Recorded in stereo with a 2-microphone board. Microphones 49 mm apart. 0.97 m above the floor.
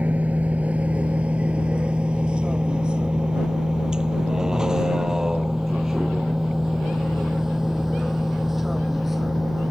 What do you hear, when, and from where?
0.0 s a vehicle: 30° right (ahead or behind); by 9.7 s 5° right (ahead or behind)